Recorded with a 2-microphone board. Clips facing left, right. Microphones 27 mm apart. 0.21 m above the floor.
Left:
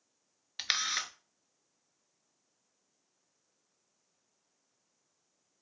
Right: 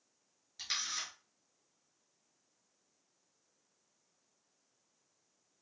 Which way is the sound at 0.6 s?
80° left.